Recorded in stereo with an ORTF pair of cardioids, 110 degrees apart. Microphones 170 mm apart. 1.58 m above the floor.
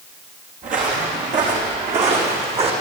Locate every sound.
0.6 s footsteps: 55° right, 5.5 m; by 2.7 s 40° right, 5 m